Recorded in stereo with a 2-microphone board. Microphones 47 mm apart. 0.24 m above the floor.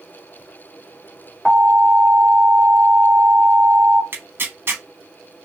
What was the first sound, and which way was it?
An alarm, 20° right (ahead or behind).